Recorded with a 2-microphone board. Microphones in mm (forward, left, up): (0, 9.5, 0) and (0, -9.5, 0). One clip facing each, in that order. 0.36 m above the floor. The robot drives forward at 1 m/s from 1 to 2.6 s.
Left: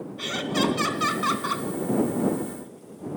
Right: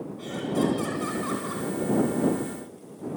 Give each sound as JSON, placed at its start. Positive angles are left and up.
{"t": 0.2, "sound": "laughter", "side_deg": 70, "distance_m": 3.0}